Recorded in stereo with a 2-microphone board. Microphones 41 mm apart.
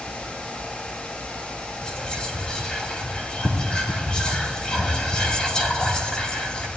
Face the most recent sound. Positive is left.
turn(degrees=25)  # may be behind; listen again after turning